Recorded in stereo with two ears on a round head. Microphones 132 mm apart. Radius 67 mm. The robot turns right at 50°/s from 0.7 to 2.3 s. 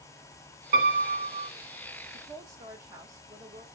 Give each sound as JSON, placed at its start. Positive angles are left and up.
{"t": 0.7, "sound": "a piano", "azimuth_deg": -80, "distance_m": 1.7}
{"t": 2.1, "sound": "a woman speaking", "side_deg": -30, "distance_m": 1.2}